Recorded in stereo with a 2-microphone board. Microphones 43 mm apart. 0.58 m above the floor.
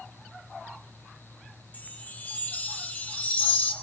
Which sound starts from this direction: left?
A chime, at 1.7 s.